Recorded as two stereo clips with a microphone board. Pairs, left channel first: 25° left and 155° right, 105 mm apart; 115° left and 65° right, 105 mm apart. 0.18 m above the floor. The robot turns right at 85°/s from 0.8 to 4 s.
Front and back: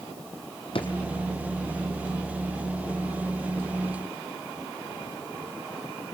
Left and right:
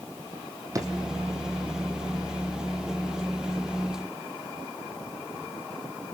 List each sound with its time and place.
0.8 s a drawer: 10° right, 2.5 m; by 0.9 s straight ahead, 2.5 m